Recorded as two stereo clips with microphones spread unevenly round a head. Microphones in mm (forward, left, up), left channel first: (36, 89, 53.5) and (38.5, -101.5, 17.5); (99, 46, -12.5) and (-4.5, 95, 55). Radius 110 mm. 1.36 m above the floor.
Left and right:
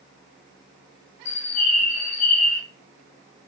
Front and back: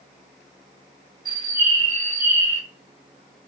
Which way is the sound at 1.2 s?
50° left.